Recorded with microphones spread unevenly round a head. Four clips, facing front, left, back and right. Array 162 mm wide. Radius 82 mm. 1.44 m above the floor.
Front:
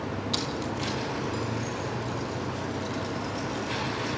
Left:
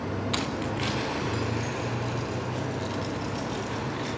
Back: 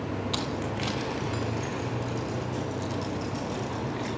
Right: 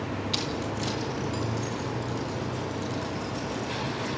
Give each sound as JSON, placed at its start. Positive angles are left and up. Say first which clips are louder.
{"t": 0.3, "sound": "keys jangling", "louder": "left 1 dB, even", "azimuth_deg": 140, "distance_m": 0.9}